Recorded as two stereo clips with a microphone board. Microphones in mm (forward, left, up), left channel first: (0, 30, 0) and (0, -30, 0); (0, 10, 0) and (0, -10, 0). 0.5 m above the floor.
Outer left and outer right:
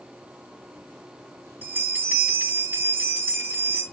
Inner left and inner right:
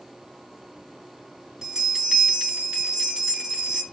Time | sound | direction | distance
1.6 | a bell | 30° right (ahead or behind) | 2.5 m